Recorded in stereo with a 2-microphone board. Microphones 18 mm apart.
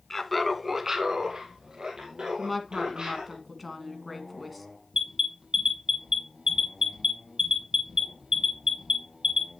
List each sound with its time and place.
0.1 s laughter: 25° left (ahead or behind), 1.3 m; by 3.4 s 65° right (ahead or behind), 4 m
2.4 s a woman speaking: centre (ahead or behind), 1.7 m
4.9 s an alarm: 50° right (ahead or behind), 7 m